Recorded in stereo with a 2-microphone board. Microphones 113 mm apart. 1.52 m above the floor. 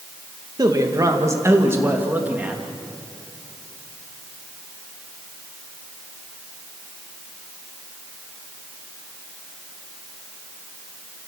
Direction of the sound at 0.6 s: 35° right (ahead or behind).